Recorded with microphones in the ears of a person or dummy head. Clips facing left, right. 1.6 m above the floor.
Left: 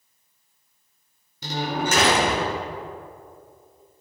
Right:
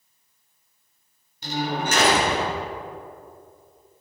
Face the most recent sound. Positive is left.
turn(degrees=75)  # may be behind; listen again after turning